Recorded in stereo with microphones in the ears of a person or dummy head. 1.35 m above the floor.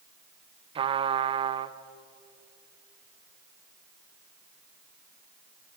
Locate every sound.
0.8 s a trumpet: 35° right (ahead or behind), 0.8 m